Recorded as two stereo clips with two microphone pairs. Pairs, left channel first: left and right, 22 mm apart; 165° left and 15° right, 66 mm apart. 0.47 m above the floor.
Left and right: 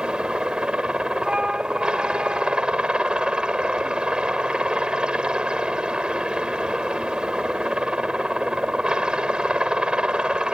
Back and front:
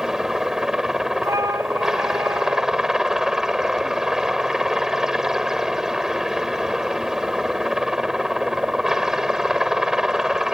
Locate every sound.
0.0 s a helicopter: 95° right
1.2 s a flute: 45° right